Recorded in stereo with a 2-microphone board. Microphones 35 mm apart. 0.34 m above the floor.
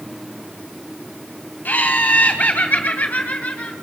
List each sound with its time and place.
1.6 s laughter: 60° left (ahead or behind), 2.5 m; by 3.7 s 45° left (ahead or behind), 3 m